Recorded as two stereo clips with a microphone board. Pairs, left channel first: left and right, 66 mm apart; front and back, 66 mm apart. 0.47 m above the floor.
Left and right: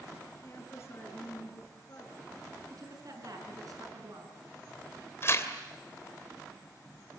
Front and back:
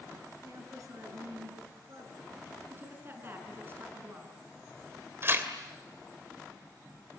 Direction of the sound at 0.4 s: 140° left.